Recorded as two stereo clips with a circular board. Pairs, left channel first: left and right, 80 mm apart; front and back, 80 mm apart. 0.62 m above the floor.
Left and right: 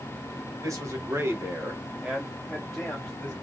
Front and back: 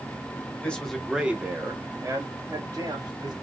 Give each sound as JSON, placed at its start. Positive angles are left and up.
{"t": 0.6, "sound": "a man speaking", "azimuth_deg": -65, "distance_m": 1.4}